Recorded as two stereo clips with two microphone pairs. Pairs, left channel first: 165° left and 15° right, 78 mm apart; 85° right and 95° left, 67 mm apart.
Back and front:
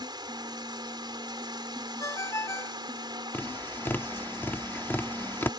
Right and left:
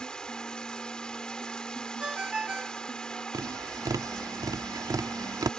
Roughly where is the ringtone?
Behind.